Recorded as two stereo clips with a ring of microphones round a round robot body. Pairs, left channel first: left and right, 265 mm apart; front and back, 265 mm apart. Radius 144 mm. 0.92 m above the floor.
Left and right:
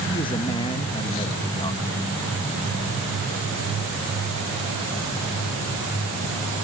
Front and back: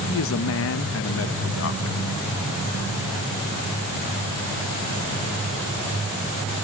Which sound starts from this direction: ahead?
A man speaking, at 0.1 s.